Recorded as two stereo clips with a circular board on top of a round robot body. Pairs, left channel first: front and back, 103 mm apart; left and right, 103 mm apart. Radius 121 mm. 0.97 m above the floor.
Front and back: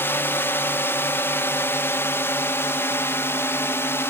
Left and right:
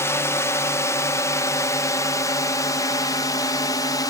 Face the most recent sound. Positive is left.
turn(degrees=55)